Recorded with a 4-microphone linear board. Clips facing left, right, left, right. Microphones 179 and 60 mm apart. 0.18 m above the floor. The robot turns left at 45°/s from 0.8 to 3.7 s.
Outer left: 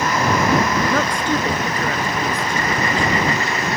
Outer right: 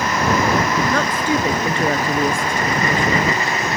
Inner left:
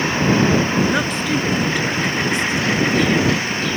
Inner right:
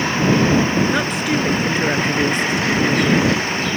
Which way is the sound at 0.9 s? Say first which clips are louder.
Outer right 1 dB, even; 5° left.